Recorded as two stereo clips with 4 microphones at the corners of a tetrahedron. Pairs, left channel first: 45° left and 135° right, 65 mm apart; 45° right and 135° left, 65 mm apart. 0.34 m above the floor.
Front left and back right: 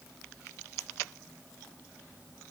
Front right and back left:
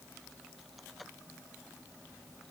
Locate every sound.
Only background noise.